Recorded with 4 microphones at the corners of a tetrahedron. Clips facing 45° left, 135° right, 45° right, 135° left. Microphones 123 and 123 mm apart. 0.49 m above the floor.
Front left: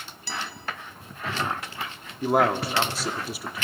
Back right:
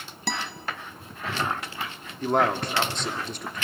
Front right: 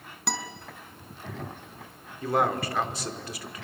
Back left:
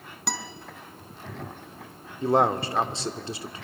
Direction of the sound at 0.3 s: 135° right.